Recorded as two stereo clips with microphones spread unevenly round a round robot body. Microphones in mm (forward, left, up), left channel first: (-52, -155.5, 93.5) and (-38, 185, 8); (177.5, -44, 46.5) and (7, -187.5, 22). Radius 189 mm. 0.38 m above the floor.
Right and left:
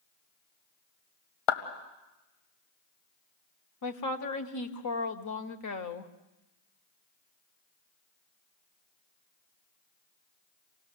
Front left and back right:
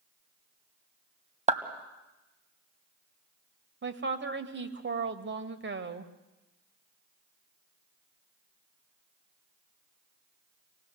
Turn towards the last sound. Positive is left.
turn(degrees=-130)